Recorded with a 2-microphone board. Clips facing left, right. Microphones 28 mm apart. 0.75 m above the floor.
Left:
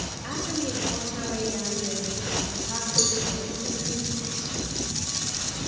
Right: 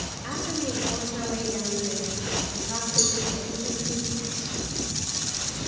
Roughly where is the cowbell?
Centre.